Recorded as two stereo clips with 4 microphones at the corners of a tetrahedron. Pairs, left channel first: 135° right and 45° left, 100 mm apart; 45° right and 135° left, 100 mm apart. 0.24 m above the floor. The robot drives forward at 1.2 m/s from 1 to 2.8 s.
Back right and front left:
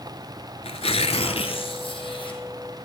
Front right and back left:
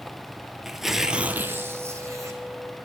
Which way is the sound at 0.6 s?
140° right.